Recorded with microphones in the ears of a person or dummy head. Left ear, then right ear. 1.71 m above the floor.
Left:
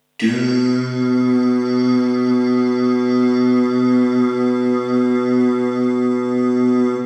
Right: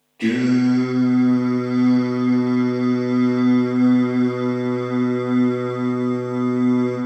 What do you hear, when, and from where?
0.2 s singing: 70° left (ahead or behind), 0.8 m